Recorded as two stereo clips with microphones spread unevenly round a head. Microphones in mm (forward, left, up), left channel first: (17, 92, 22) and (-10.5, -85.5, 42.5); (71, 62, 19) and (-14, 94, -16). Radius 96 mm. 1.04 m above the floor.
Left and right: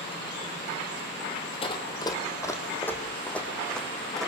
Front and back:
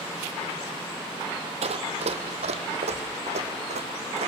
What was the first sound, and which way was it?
Running footsteps, 145° left.